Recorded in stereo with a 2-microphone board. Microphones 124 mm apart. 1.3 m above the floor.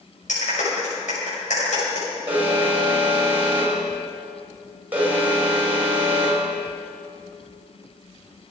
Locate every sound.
0.3 s a clap: 85° left, 6.5 m
2.3 s an alarm: 15° right (ahead or behind), 5.5 m